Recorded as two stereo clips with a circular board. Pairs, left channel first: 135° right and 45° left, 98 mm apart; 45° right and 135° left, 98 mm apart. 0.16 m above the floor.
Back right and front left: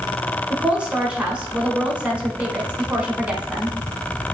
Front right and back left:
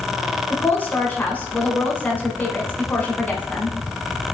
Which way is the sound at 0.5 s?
10° right.